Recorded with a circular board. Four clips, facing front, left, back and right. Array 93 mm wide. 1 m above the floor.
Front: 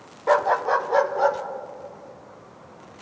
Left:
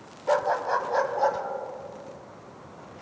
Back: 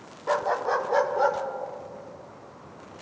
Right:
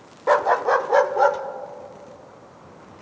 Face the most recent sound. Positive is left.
turn(degrees=-90)